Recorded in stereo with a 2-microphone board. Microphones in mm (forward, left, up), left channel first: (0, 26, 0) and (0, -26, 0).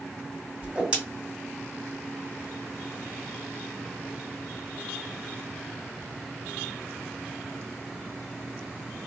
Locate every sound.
0.6 s a whoosh: 20° right (ahead or behind), 1.9 m